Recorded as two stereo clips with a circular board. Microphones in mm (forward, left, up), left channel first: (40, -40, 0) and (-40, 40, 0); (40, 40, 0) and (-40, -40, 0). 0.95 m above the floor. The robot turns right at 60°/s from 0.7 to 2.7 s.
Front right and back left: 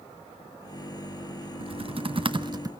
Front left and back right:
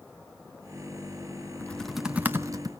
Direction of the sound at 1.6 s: 115° left.